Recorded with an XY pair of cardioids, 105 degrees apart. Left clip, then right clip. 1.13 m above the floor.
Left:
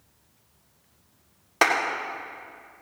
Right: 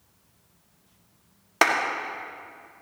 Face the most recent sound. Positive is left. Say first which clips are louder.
# even
turn(degrees=-20)